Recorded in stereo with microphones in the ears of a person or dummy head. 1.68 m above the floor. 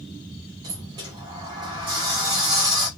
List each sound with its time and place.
0.6 s a sliding door: 20° right (ahead or behind), 0.8 m